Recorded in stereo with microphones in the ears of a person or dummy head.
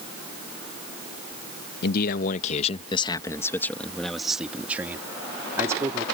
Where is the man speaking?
60° left (ahead or behind); by 6.0 s 20° right (ahead or behind).